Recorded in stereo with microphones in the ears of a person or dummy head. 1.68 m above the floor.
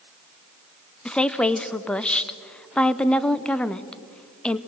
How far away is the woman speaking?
About 0.9 m.